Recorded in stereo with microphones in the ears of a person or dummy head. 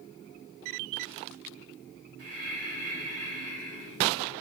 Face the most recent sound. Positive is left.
turn(degrees=-45)  # may be behind; listen again after turning